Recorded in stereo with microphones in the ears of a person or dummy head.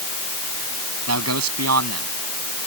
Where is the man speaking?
90° right; by 2.7 s 85° right.